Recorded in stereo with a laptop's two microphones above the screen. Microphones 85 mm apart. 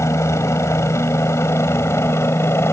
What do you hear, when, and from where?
0.0 s a helicopter: 35° left (ahead or behind); by 2.7 s 30° left (ahead or behind)